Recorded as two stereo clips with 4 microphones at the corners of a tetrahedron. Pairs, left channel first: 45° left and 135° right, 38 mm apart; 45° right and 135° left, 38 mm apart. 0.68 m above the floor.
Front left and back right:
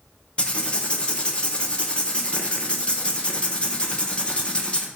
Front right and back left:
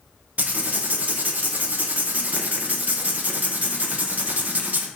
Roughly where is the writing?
Left.